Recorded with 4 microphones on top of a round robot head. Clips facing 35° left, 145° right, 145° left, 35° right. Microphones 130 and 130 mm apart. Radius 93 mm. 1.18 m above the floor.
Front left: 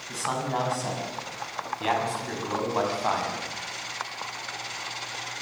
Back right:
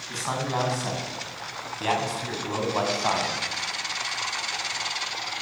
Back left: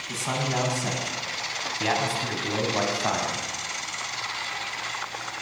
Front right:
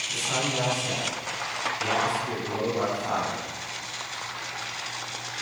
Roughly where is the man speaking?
Behind left.